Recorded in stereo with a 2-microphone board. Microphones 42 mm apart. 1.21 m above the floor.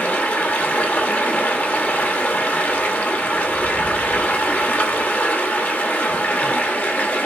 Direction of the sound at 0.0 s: 45° left (ahead or behind).